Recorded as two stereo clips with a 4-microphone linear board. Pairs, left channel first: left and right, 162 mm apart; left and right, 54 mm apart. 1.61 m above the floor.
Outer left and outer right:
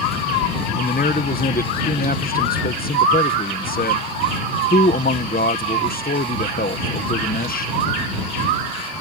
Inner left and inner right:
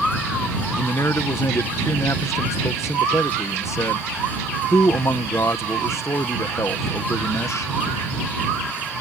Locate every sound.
0.7 s a man speaking: 65° left (ahead or behind)